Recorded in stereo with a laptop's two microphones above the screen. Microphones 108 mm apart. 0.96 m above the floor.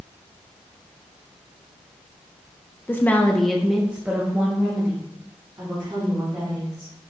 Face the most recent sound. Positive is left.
turn(degrees=-30)  # may be behind; listen again after turning